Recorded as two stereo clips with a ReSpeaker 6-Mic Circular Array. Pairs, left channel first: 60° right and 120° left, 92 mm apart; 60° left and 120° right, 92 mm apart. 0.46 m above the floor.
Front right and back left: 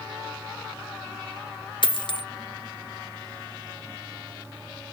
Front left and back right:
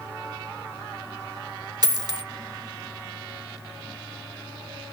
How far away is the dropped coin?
About 0.6 m.